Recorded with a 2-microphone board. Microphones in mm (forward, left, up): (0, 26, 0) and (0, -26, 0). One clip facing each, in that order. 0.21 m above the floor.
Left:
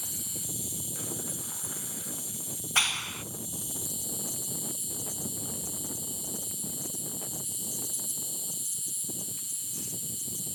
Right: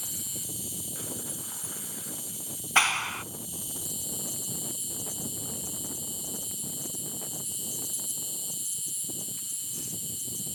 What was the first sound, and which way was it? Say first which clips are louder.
An insect: even; 50° right (ahead or behind).